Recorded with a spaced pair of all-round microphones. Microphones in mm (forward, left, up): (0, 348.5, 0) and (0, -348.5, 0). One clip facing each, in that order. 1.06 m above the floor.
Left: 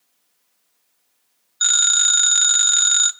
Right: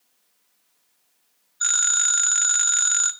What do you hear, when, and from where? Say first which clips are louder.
1.6 s a phone ringing: left 2 dB; 65° left (ahead or behind), 0.8 m